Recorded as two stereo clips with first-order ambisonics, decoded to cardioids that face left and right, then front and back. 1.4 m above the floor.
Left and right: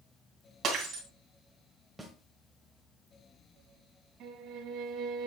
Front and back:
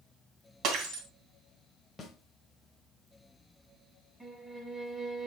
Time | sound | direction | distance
0.6 | breaking glass | 135° right | 2.5 m
2.0 | a snare drum | 20° right | 1.2 m
4.2 | a violin | 100° right | 1.8 m